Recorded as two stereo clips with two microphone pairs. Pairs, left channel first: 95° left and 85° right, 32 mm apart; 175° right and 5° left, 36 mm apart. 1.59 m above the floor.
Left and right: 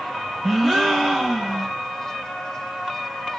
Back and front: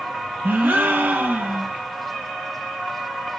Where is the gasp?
5° right, 1.4 m.